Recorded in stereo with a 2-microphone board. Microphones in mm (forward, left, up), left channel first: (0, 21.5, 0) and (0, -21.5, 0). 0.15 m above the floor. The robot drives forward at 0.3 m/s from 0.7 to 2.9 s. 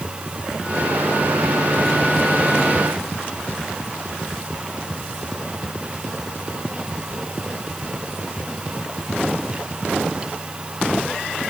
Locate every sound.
Only background noise.